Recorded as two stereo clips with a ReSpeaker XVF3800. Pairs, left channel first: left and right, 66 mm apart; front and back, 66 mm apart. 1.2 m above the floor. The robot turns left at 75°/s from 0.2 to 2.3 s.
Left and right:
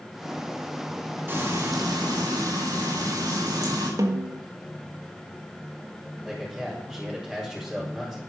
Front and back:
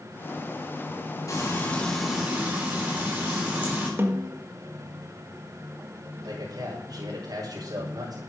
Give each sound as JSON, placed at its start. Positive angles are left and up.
{"t": 1.3, "sound": "frying", "azimuth_deg": -30, "distance_m": 5.0}
{"t": 4.0, "sound": "a snare drum", "azimuth_deg": -125, "distance_m": 1.6}
{"t": 6.2, "sound": "a man speaking", "azimuth_deg": 180, "distance_m": 4.5}